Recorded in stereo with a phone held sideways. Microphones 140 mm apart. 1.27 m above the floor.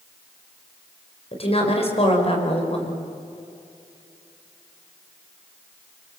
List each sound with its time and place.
1.3 s a woman speaking: 45° left (ahead or behind), 4.5 m